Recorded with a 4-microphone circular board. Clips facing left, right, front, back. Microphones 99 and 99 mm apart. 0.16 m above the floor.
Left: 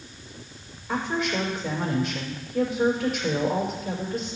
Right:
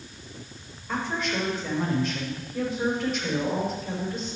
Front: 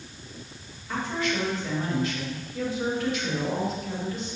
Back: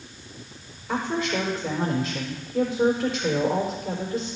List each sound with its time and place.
0.9 s a woman speaking: 175° left, 6 m